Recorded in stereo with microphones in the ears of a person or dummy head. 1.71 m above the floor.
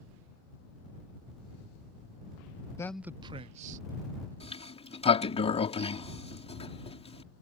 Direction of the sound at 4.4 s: 35° left (ahead or behind).